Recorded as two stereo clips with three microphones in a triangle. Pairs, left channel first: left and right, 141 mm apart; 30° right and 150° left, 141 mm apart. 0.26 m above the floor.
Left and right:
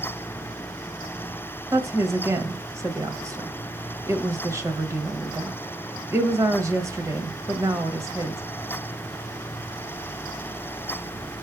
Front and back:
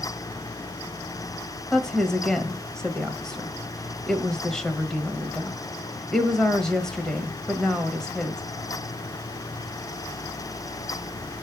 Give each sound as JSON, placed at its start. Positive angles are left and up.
{"t": 1.7, "sound": "a woman speaking", "azimuth_deg": -110, "distance_m": 1.2}